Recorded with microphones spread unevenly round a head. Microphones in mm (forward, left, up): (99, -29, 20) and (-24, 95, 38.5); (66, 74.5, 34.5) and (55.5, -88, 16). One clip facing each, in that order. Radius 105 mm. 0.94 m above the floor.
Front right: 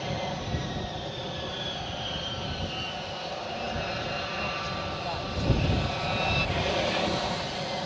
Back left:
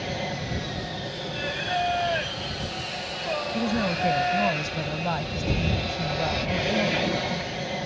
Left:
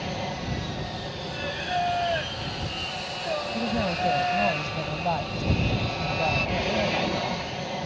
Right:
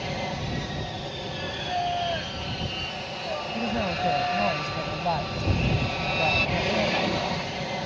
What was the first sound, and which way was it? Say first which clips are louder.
An aircraft: back left 2 dB, even; 170° right.